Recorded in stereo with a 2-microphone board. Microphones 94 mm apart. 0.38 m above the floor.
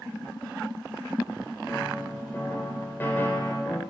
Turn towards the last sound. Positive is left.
turn(degrees=25)  # may be behind; listen again after turning